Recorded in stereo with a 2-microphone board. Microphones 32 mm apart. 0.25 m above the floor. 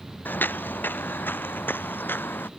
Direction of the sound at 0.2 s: 65° left (ahead or behind).